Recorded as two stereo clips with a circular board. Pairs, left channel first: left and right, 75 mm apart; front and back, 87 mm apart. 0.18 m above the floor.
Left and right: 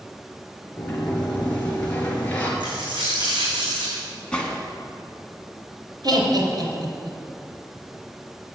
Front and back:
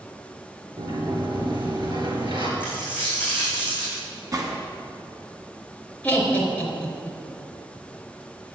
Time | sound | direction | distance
0.8 | a sliding door | 160° left | 2.5 m
2.6 | a dropped coin | 105° right | 4.5 m
4.3 | a gunshot | 160° left | 1.9 m
6.0 | laughter | 75° right | 3.5 m